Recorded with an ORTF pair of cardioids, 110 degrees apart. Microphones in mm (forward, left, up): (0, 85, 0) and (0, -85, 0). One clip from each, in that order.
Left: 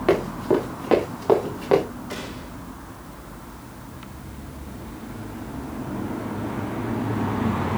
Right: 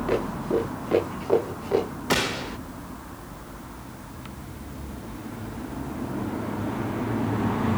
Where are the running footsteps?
60° left, 8.5 m; by 1.9 s 70° left, 8 m.